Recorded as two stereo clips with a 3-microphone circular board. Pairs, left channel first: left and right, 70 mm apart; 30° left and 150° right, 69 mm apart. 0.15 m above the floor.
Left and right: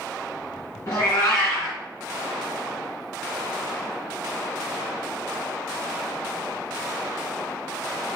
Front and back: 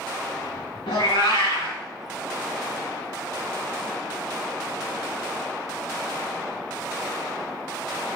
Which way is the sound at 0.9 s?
35° left.